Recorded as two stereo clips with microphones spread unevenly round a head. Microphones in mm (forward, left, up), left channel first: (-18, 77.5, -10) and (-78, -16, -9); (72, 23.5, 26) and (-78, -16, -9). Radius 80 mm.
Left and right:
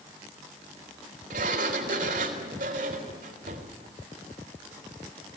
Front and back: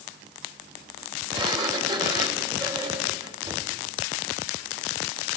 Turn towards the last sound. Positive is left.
turn(degrees=-100)